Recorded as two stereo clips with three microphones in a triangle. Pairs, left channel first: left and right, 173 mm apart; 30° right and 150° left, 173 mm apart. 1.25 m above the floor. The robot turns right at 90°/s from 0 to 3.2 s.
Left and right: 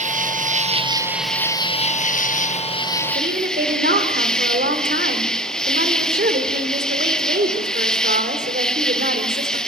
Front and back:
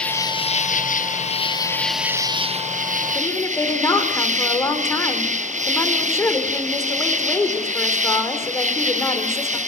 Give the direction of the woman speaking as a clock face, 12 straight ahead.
4 o'clock.